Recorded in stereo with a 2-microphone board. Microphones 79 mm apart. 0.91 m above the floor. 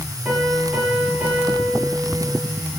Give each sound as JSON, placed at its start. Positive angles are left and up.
{"t": 0.2, "sound": "a piano", "side_deg": -10, "distance_m": 9.5}